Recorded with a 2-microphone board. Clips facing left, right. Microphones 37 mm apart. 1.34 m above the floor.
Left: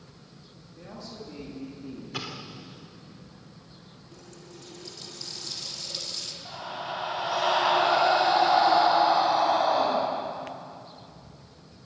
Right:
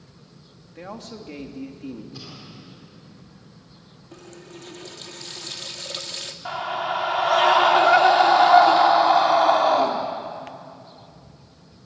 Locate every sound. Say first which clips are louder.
0.8 s a man speaking: right 5 dB; 65° right (ahead or behind), 3 m
2.1 s an explosion: left 4 dB; 80° left, 2.5 m
4.1 s a running tap: right 7 dB; 50° right (ahead or behind), 1.5 m
6.5 s a scream: right 10 dB; 65° right (ahead or behind), 3 m